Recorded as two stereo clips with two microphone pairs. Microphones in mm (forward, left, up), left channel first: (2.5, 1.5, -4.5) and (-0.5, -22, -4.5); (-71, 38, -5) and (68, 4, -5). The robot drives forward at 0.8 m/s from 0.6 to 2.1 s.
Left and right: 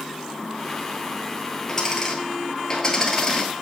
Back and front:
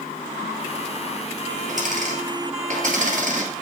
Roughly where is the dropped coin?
Ahead.